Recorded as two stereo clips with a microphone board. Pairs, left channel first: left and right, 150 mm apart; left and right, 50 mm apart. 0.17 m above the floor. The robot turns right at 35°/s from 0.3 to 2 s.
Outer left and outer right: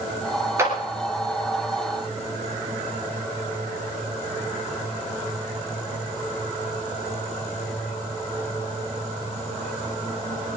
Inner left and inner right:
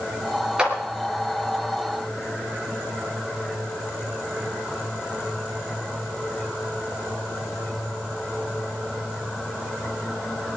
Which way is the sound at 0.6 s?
20° right (ahead or behind).